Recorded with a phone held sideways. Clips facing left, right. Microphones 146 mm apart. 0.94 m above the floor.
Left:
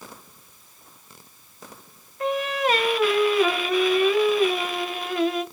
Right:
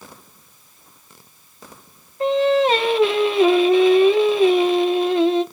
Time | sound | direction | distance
2.2 | singing | 30° right (ahead or behind) | 0.6 m